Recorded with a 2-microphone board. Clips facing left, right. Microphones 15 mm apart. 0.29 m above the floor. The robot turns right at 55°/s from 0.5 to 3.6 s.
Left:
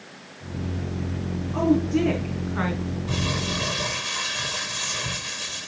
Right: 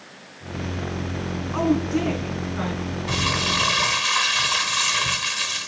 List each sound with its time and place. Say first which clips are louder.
1.5 s a woman speaking: left 1 dB; 35° right (ahead or behind), 3 m; by 2.8 s 30° left (ahead or behind), 3 m
3.1 s crumpling: right 6 dB; 30° right (ahead or behind), 3 m; by 5.7 s 55° right (ahead or behind), 3 m